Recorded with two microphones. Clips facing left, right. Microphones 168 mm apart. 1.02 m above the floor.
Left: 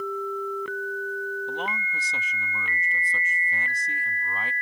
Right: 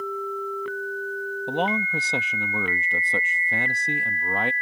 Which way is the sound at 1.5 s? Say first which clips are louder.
Right 7 dB; 70° right (ahead or behind).